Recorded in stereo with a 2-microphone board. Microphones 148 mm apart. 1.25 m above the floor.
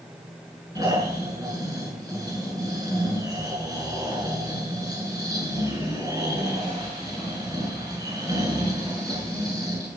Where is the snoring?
25° right (ahead or behind), 7.5 m.